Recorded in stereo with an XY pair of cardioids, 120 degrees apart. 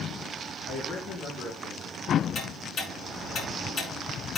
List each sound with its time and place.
0.7 s a man speaking: 60° left, 3.5 m; by 2.2 s 75° left, 3 m
2.4 s ticking: 50° left, 7 m